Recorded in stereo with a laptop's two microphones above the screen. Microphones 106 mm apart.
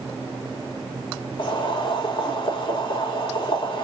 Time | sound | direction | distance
1.4 | boiling | 50° left (ahead or behind) | 3 m